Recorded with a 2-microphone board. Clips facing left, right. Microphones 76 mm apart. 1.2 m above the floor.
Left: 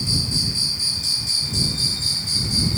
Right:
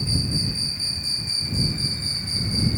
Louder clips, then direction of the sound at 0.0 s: Even; 90° left.